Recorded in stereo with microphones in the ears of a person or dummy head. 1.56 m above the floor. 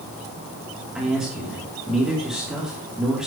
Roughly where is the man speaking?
Centre.